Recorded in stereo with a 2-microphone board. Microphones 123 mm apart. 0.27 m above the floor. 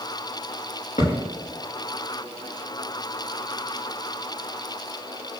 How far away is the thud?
About 3.5 m.